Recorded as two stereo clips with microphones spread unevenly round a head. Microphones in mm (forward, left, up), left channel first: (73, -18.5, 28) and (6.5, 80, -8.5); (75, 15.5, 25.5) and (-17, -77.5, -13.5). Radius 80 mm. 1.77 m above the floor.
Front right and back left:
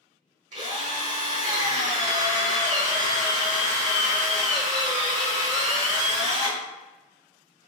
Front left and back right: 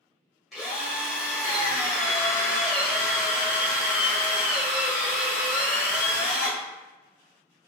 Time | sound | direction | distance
0.5 | a drill | 120° left | 1.2 m